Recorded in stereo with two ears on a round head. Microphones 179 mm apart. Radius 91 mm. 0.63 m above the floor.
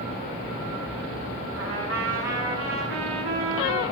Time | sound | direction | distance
1.6 | a trumpet | 60° right (ahead or behind) | 7 m